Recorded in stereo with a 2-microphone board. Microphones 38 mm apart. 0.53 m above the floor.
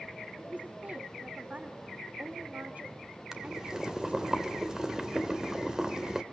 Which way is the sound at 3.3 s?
15° right (ahead or behind).